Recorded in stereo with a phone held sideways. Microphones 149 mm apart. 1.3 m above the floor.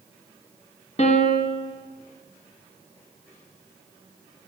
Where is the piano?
45° left (ahead or behind), 1.2 m.